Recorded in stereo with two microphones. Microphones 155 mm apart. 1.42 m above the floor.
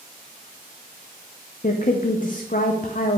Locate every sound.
1.6 s a woman speaking: 60° left (ahead or behind), 0.6 m